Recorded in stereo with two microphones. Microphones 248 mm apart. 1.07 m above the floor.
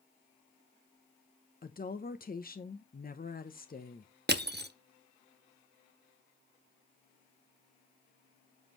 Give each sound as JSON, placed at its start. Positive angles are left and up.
{"t": 1.6, "sound": "a woman speaking", "side_deg": 35, "distance_m": 0.7}
{"t": 4.3, "sound": "crushing", "side_deg": -40, "distance_m": 0.6}